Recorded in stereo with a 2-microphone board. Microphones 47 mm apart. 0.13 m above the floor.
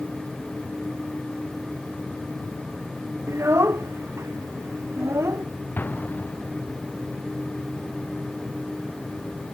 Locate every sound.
3.3 s a child speaking: 80° right
5.8 s an explosion: 45° left (ahead or behind)